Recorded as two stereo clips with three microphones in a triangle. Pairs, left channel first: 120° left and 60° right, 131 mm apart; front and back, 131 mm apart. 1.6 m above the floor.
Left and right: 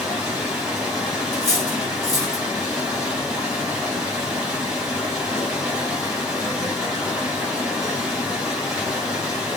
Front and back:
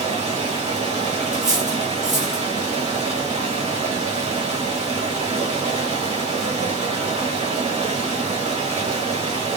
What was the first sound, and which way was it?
Running water, 145° right.